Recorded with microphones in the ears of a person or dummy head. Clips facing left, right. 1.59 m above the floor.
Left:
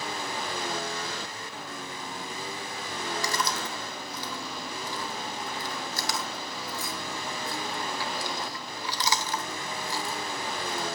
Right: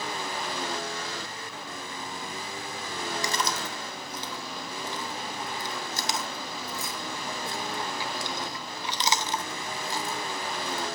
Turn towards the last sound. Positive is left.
turn(degrees=-20)  # may be behind; listen again after turning